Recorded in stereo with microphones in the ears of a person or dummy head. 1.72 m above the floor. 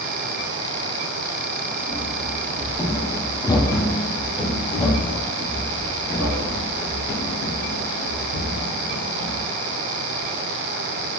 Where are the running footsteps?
5° left (ahead or behind), 3.5 m; by 9.5 s 60° left (ahead or behind), 3.5 m.